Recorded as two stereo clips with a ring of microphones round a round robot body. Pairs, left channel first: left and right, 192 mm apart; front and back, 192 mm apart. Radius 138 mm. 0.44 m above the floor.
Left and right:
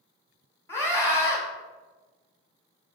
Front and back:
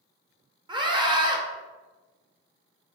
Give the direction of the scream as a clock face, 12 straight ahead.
7 o'clock.